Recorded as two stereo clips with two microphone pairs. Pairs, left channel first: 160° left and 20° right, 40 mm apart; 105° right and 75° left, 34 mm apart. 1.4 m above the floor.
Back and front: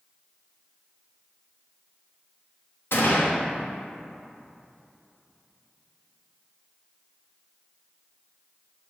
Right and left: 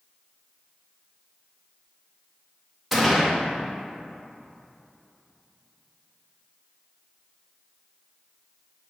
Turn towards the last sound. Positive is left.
turn(degrees=160)